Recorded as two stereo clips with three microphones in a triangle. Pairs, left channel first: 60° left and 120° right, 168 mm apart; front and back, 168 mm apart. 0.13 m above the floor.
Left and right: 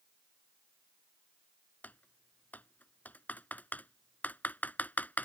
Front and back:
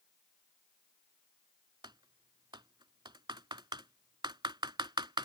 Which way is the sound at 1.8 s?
135° left.